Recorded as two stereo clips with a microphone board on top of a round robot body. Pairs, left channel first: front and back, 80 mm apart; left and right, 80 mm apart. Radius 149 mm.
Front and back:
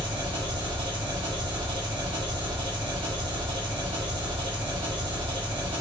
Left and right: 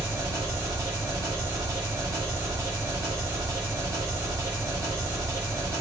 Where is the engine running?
150° right, 1.1 m.